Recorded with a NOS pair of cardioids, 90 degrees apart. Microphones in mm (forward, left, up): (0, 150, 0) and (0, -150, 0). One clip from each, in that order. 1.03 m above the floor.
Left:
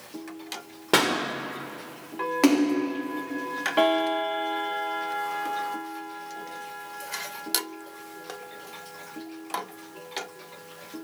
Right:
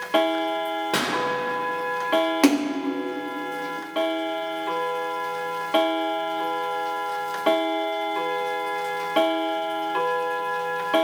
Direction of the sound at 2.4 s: 15° right.